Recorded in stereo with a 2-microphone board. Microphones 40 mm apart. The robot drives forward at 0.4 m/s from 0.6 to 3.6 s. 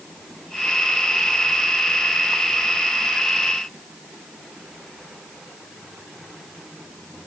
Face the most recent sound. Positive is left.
No sound to turn to.